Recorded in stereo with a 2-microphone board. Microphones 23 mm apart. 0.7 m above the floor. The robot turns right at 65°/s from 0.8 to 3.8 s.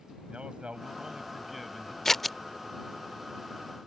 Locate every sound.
0.3 s a man speaking: 50° right; by 1.9 s 25° left
2.0 s scissors: 15° left (ahead or behind); by 2.4 s 5° right (ahead or behind)